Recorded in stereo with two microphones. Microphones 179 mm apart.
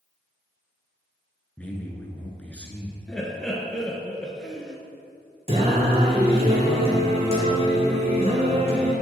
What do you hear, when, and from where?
1.6 s a man speaking: 10° left (ahead or behind), 1.1 m
3.1 s laughter: 5° left (ahead or behind), 1.2 m
5.5 s singing: 35° right (ahead or behind), 2 m